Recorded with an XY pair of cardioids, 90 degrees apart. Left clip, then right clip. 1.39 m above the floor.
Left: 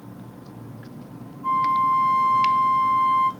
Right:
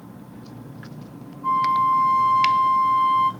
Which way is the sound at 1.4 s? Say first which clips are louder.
Right 1 dB; 10° right.